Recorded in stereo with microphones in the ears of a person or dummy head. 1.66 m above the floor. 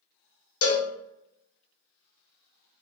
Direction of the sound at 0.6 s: 60° left (ahead or behind).